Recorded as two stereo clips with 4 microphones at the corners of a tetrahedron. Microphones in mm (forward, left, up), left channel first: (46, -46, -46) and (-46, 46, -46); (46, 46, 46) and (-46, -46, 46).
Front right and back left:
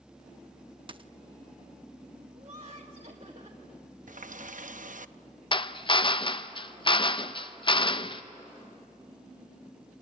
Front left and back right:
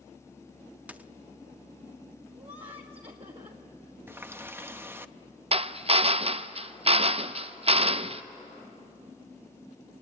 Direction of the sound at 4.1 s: 150° left.